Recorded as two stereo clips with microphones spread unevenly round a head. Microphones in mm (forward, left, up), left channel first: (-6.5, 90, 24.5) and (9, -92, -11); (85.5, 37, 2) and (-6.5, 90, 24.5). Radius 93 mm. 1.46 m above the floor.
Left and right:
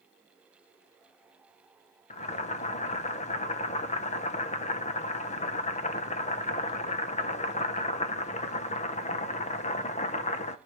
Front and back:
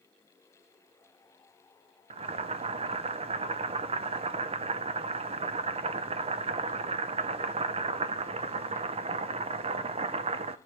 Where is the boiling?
145° left, 0.7 m.